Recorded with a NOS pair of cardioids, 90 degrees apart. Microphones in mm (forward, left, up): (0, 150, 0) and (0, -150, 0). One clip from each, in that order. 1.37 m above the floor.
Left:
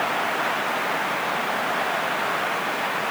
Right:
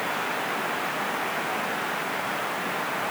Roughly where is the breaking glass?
I don't hear breaking glass.